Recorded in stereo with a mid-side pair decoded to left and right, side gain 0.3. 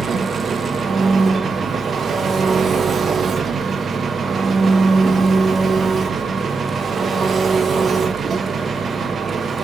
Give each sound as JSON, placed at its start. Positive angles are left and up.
{"t": 0.0, "sound": "an engine running", "azimuth_deg": -65, "distance_m": 1.1}